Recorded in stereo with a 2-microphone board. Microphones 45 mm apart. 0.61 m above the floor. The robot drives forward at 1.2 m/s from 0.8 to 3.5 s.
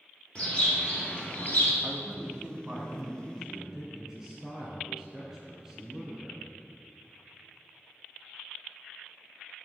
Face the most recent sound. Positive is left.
turn(degrees=-10)  # may be behind; listen again after turning